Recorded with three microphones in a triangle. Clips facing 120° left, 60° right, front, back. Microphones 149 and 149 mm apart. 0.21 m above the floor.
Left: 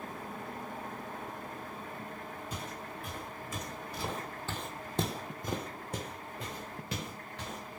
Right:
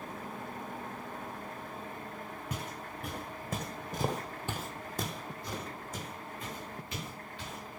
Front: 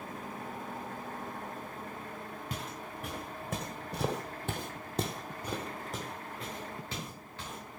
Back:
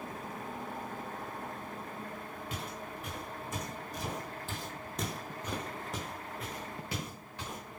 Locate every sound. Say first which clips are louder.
2.5 s footsteps: right 1 dB, back 1 dB; 45° right, 1.6 m; by 7.6 s 105° left, 2 m